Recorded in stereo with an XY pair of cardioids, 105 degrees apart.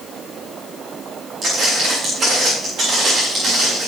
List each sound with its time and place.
1.4 s footsteps: 55° right, 6 m